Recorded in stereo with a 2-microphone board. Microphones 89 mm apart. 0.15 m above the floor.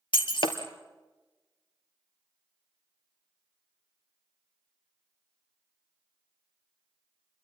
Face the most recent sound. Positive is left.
turn(degrees=65)  # may be behind; listen again after turning